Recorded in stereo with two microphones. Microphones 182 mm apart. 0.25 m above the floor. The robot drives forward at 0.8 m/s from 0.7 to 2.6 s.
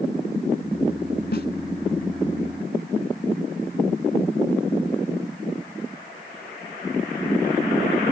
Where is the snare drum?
70° left (ahead or behind); by 1.5 s 65° left (ahead or behind).